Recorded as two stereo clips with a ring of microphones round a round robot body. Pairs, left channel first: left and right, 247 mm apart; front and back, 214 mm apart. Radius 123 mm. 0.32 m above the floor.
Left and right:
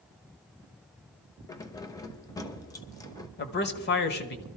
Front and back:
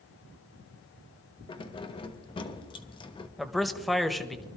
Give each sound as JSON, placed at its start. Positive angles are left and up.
{"t": 1.5, "sound": "keys jangling", "azimuth_deg": 30, "distance_m": 0.8}
{"t": 3.4, "sound": "a man speaking", "azimuth_deg": 90, "distance_m": 1.1}